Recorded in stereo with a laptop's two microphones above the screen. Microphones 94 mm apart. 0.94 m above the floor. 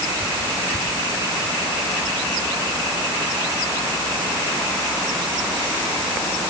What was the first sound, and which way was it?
Only background noise.